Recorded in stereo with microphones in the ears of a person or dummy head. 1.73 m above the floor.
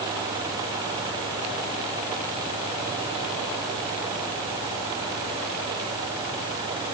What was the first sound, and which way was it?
Only background noise.